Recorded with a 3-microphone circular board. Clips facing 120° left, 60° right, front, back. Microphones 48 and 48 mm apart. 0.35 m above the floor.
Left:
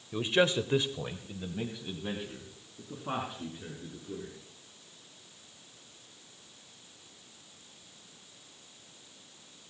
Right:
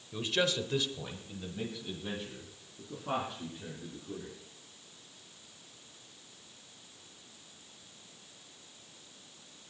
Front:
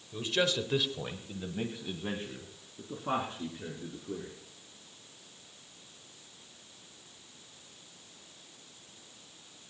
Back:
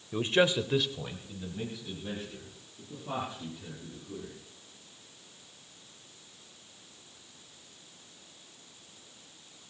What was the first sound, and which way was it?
A man speaking, straight behind.